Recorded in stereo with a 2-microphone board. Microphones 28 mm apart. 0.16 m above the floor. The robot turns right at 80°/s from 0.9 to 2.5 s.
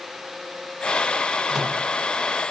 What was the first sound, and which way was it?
A microwave, 5° right (ahead or behind).